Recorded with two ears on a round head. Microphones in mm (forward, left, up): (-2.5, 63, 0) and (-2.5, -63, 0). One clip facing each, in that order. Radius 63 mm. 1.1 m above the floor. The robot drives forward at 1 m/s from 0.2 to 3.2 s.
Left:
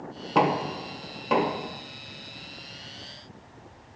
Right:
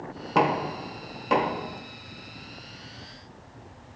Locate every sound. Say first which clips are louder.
0.3 s knocking: even; centre (ahead or behind), 1.1 m